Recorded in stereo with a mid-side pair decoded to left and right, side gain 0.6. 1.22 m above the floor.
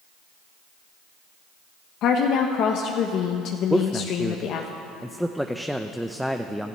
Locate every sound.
2.0 s a woman speaking: 60° left, 1.1 m
3.7 s a man speaking: straight ahead, 0.7 m